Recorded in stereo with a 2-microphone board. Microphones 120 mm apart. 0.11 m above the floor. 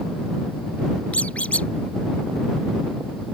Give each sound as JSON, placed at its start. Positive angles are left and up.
{"t": 1.1, "sound": "a squeak", "side_deg": 10}